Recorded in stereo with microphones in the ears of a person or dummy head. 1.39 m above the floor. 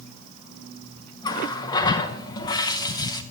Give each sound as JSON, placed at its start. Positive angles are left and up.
{"t": 1.2, "sound": "a running tap", "side_deg": 25, "distance_m": 0.7}